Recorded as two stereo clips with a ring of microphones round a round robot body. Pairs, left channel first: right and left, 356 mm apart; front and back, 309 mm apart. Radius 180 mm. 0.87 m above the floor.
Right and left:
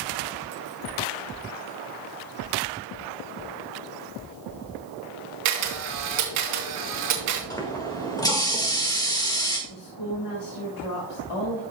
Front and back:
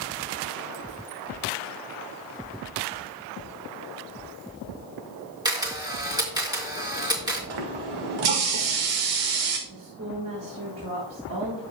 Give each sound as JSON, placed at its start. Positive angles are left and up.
{"t": 5.5, "sound": "a camera shutter", "azimuth_deg": 105, "distance_m": 3.0}
{"t": 7.5, "sound": "a running tap", "azimuth_deg": -170, "distance_m": 1.9}
{"t": 9.7, "sound": "a woman speaking", "azimuth_deg": -125, "distance_m": 1.7}